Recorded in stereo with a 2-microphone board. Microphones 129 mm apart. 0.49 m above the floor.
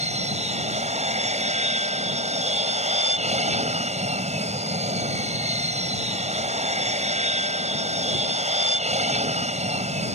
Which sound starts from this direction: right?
An aircraft, at 0.0 s.